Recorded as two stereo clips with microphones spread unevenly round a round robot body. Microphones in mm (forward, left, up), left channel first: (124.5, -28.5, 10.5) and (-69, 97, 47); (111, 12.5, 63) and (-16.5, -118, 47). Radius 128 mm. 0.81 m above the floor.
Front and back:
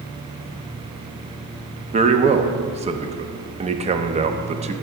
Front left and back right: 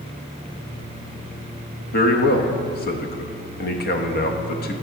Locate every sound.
1.9 s a man speaking: 80° left, 0.8 m